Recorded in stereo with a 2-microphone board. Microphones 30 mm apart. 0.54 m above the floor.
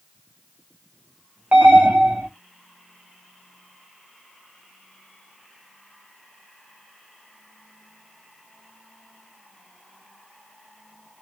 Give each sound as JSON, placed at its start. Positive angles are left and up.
{"t": 1.5, "sound": "an alarm", "side_deg": -50, "distance_m": 1.3}